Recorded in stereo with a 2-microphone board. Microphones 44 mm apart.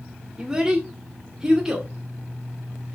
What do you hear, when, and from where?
0.4 s a child speaking: 10° right (ahead or behind), 1.8 m